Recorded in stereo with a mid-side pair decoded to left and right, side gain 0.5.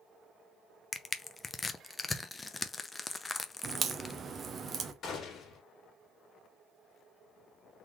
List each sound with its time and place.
0.9 s crushing: 20° left, 0.6 m
3.6 s a crack: 40° right, 0.8 m
5.0 s a gunshot: 60° left, 2 m